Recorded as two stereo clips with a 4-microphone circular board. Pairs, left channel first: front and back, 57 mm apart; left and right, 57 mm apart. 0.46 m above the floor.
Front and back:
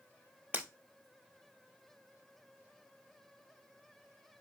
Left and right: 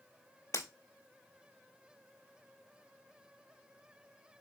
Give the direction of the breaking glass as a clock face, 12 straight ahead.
8 o'clock.